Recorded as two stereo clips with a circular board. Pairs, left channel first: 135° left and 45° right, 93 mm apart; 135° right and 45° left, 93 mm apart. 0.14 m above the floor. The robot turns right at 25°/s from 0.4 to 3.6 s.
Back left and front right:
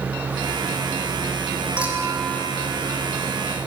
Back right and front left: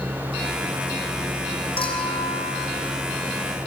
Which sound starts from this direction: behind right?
A clink, at 1.8 s.